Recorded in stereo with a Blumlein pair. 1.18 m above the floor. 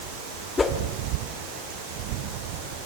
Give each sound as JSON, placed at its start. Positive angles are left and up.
{"t": 0.6, "sound": "a whoosh", "azimuth_deg": 15, "distance_m": 1.9}